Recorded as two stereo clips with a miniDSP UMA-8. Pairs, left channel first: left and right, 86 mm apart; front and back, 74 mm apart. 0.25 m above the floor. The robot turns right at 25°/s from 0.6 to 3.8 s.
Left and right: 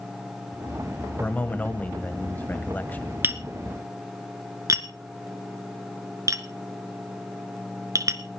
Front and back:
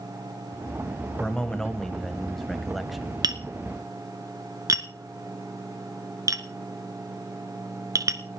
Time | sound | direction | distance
1.2 | a man speaking | 55° left | 1.3 m
3.2 | tapping | 155° right | 1.3 m